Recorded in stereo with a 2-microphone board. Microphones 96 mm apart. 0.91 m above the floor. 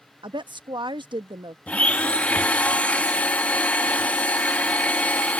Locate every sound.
0.2 s a woman speaking: 55° right (ahead or behind)
1.7 s a blender: 15° left (ahead or behind)